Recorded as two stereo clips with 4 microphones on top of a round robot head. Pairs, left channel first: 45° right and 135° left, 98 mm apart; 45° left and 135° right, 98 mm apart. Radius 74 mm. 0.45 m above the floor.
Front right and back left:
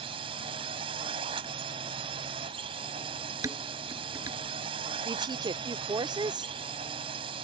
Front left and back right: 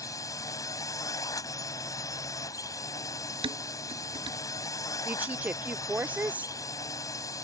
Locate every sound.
0.0 s a drone: 100° left
3.4 s dishes clattering: 165° right
5.0 s a woman speaking: 155° left